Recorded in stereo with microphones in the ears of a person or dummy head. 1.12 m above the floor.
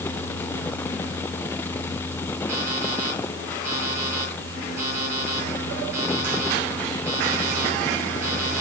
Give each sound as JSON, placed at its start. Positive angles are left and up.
{"t": 2.5, "sound": "an alarm clock", "side_deg": -15, "distance_m": 7.5}